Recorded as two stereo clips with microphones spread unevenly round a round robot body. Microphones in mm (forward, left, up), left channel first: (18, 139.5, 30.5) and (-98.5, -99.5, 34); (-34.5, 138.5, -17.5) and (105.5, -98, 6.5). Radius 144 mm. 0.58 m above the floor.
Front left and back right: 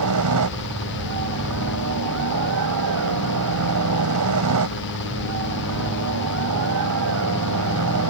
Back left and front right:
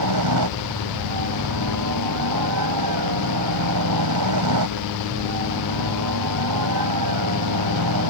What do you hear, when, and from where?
0.0 s a helicopter: 85° right